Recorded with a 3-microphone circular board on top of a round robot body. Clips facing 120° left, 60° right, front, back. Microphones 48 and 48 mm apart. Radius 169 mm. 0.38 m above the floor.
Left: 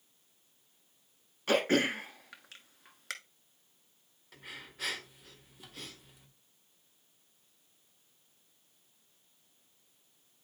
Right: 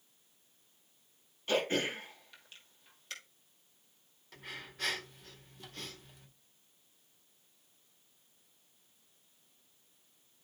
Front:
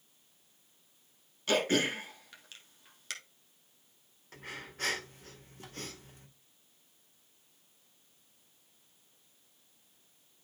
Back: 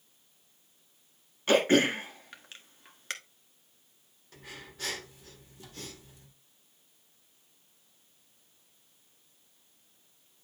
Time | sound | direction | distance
1.5 | throat clearing | 125° left | 1.2 m
4.3 | breathing | 35° left | 1.8 m